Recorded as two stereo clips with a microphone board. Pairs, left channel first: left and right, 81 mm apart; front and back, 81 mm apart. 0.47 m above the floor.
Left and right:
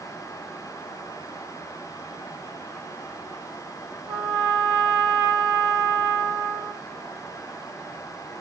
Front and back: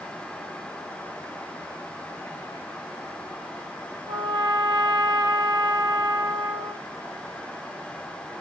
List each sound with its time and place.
4.1 s a trumpet: 165° right, 0.8 m